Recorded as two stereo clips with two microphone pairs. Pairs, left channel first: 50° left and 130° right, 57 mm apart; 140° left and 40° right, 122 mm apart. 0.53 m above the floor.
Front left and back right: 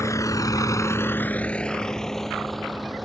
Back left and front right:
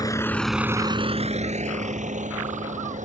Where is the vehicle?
80° left; by 3.1 s 45° right.